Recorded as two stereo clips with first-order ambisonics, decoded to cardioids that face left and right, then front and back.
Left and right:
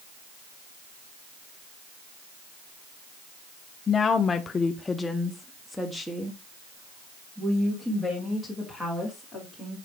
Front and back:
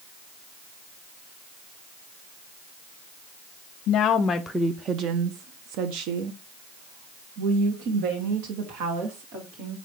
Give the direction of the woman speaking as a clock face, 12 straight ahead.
11 o'clock.